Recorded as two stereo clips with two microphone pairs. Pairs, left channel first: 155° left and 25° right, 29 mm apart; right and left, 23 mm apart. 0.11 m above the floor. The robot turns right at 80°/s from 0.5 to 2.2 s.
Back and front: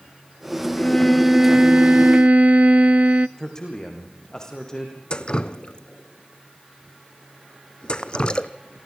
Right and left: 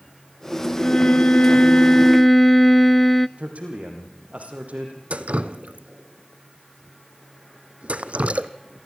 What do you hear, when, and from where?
0.8 s a violin: 145° right, 0.5 m; by 3.3 s 35° right, 0.5 m
3.4 s a man speaking: 85° left, 5.5 m
5.1 s dripping: 100° left, 0.8 m